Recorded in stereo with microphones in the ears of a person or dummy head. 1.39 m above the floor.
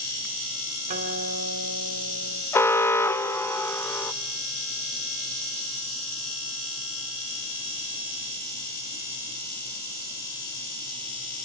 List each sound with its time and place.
0.9 s a guitar: 40° right (ahead or behind), 3 m
2.5 s an alarm: 15° left (ahead or behind), 0.7 m